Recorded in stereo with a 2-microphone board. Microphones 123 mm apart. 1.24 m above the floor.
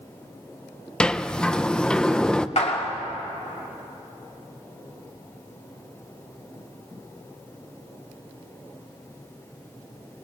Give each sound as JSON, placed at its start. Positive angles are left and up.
{"t": 1.0, "sound": "a sliding door", "side_deg": 5, "distance_m": 0.5}
{"t": 2.6, "sound": "a clap", "side_deg": 60, "distance_m": 2.0}